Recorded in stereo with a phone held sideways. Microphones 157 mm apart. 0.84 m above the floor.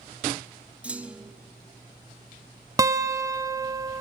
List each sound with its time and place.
0.8 s a clunk: 10° right (ahead or behind), 0.9 m
2.8 s a guitar: 20° right (ahead or behind), 1.1 m